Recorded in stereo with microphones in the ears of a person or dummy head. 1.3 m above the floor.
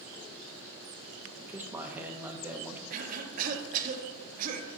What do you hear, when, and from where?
1.4 s a man speaking: 10° right (ahead or behind), 0.8 m
2.9 s a cough: 50° right (ahead or behind), 0.8 m